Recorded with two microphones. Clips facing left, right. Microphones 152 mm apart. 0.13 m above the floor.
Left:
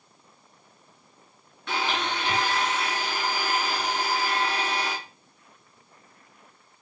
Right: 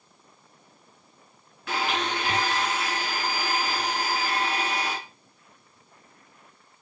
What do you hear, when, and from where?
1.7 s a blender: 5° right (ahead or behind), 1.3 m